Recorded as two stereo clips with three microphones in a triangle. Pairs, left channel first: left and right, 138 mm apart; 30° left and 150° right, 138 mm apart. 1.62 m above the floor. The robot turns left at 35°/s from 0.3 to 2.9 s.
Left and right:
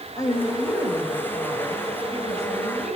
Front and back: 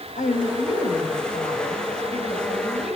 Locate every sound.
0.2 s a woman speaking: 25° left, 8 m; by 3.0 s 70° right, 8 m